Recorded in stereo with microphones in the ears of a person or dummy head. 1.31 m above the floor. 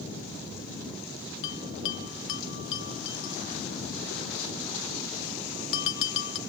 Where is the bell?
70° left (ahead or behind), 0.7 m.